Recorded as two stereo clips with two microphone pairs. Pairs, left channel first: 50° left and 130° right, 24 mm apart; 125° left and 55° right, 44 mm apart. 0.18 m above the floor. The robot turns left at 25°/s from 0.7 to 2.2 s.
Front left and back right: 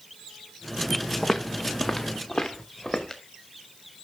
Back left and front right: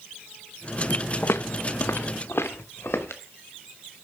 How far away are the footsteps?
About 0.9 m.